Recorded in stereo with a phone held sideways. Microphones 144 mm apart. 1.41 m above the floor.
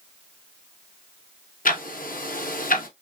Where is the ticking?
75° left (ahead or behind), 0.9 m.